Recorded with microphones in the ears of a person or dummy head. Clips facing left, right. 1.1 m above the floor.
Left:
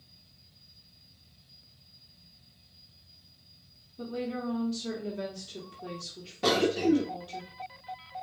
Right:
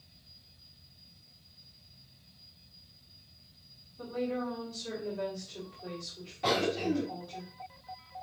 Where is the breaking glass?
No breaking glass in this recording.